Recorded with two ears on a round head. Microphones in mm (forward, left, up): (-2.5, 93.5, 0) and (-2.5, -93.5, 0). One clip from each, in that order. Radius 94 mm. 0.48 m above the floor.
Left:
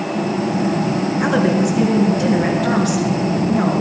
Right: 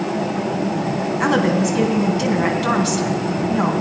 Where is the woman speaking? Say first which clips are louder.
Even; 35° right (ahead or behind), 3 m.